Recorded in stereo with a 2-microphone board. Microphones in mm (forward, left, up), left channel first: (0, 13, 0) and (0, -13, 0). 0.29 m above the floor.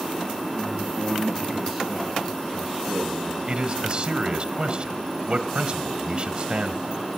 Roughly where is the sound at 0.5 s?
Centre.